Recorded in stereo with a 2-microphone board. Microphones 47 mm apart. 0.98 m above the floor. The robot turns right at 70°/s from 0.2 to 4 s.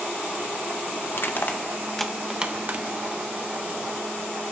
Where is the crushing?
65° left (ahead or behind), 0.7 m; by 2.9 s 50° right (ahead or behind), 0.7 m.